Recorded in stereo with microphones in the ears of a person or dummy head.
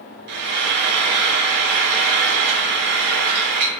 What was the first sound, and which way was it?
Frying, 60° right (ahead or behind).